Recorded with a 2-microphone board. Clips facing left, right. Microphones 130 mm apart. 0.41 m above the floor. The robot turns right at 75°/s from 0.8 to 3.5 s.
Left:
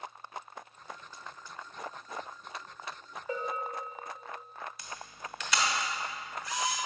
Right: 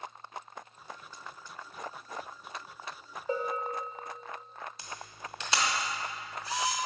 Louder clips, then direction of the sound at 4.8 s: Even; 30° right (ahead or behind).